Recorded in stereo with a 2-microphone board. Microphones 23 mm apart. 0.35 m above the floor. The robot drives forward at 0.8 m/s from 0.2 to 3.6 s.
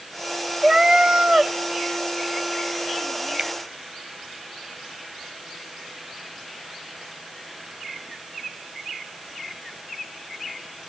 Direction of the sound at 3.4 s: 60° right (ahead or behind).